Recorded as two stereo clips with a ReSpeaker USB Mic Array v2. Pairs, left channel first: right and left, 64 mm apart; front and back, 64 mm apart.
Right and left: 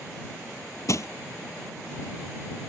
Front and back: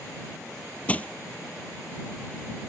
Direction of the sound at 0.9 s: 65° right.